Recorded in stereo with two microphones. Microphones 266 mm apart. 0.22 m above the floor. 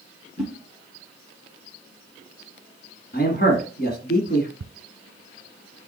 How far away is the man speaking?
About 1.7 m.